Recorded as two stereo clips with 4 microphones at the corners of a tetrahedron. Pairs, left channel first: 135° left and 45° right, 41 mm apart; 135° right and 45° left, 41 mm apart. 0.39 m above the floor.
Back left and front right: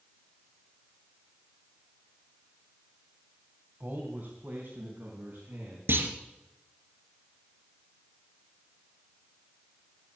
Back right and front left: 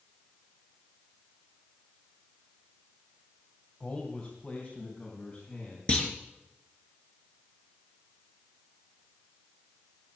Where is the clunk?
75° right, 2.5 m.